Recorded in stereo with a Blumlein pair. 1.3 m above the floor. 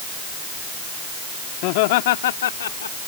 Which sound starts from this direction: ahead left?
Laughter, at 1.6 s.